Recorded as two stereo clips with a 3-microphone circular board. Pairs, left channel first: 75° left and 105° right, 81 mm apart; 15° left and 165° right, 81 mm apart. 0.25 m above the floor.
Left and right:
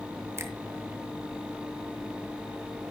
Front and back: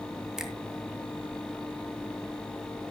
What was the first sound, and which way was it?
A finger snap, 85° right.